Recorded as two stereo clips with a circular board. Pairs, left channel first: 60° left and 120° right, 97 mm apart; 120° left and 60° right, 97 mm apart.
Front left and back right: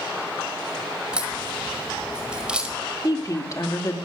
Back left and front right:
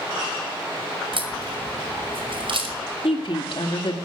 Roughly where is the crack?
Ahead right.